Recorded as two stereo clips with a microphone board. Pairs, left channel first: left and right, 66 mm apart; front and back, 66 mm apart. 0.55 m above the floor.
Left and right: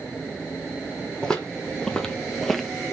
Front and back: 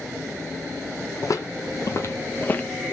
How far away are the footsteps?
About 1.1 m.